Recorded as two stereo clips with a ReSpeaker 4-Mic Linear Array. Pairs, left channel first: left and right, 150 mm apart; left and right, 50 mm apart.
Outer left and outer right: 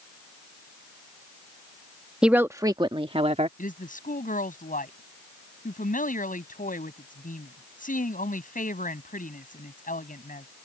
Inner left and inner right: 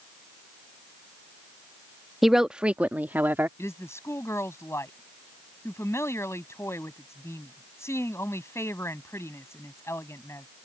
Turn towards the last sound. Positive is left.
turn(degrees=65)  # may be behind; listen again after turning